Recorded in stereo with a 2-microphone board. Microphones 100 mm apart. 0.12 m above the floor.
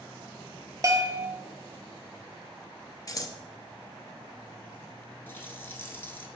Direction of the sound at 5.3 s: 20° left (ahead or behind).